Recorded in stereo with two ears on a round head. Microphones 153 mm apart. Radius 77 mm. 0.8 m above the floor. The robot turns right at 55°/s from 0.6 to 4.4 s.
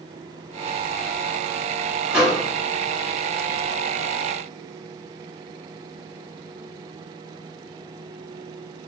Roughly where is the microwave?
Centre.